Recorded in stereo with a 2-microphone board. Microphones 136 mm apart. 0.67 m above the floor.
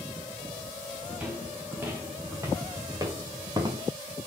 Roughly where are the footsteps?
Centre.